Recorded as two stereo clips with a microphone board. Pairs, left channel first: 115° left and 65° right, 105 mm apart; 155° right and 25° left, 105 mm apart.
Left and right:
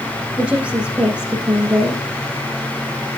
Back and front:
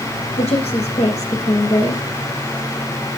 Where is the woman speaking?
145° right, 7 m.